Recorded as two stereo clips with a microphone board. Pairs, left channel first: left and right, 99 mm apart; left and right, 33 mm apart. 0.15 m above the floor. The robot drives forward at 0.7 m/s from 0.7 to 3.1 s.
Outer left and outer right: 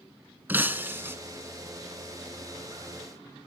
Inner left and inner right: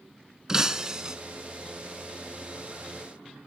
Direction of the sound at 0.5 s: 20° right (ahead or behind).